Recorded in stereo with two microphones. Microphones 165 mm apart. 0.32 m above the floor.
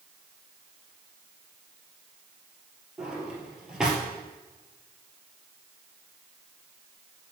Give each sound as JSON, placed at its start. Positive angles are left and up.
{"t": 3.0, "sound": "a drawer", "side_deg": -5, "distance_m": 2.0}